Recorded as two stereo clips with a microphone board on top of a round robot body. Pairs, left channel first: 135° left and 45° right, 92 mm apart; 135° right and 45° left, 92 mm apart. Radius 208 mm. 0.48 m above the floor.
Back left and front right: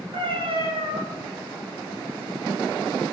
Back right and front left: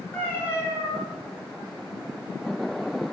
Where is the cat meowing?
70° right, 3.5 m.